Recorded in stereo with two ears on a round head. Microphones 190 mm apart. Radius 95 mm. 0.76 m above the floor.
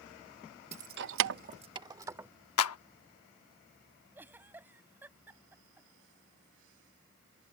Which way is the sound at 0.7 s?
30° right (ahead or behind).